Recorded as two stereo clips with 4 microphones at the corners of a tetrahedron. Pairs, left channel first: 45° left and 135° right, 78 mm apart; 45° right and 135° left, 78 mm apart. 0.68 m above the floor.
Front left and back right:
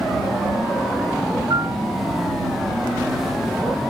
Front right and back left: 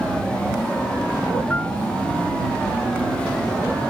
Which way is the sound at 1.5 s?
110° right.